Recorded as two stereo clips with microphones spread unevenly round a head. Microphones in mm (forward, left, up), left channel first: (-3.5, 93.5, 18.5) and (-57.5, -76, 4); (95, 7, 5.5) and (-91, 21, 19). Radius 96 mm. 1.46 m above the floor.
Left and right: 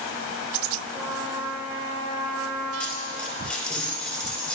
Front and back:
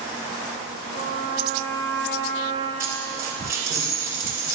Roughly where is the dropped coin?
Behind left.